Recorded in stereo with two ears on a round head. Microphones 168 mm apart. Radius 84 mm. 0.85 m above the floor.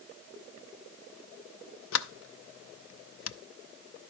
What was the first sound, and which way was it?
A sliding door, 70° left (ahead or behind).